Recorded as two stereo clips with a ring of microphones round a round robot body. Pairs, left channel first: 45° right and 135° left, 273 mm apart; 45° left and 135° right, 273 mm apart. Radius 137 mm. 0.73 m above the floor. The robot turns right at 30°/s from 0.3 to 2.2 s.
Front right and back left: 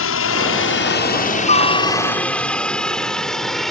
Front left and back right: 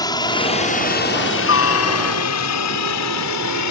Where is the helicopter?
25° right; by 3.7 s 45° left.